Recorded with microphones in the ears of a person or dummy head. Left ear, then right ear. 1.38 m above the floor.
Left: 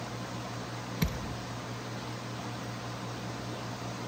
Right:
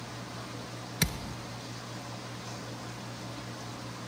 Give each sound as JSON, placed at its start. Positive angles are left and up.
{"t": 1.0, "sound": "a thud", "side_deg": -20, "distance_m": 0.7}